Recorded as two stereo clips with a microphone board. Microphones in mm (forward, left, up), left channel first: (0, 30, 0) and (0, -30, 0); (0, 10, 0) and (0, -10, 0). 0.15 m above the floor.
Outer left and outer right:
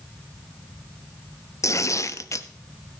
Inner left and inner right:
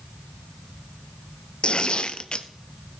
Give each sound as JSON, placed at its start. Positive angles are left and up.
{"t": 1.6, "sound": "tearing paper", "side_deg": 55, "distance_m": 0.6}